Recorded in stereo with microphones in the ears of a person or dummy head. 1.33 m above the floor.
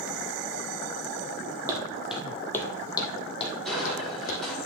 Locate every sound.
1.7 s footsteps: 15° right (ahead or behind), 2 m; by 4.4 s 50° left (ahead or behind), 4 m
3.6 s crushing: 5° left (ahead or behind), 3.5 m